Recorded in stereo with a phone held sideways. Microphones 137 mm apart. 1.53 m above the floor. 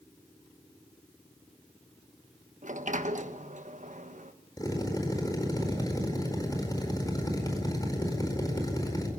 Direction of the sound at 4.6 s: 25° left (ahead or behind).